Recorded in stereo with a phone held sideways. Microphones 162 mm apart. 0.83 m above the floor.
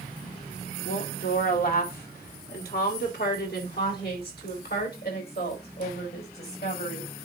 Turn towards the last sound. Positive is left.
turn(degrees=75)  # may be behind; listen again after turning